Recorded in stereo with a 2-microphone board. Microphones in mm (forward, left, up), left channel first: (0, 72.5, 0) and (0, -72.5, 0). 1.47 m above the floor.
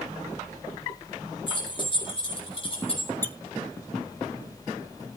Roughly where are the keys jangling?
Left.